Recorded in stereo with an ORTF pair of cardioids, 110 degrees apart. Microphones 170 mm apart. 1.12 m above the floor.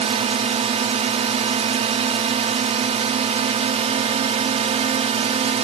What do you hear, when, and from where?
0.0 s a drone: 40° right